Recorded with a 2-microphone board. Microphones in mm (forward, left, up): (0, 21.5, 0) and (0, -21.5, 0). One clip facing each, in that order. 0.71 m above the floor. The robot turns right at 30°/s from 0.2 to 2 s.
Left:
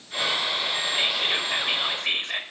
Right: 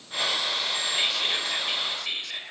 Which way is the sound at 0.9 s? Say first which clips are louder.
Left 2 dB; 10° left.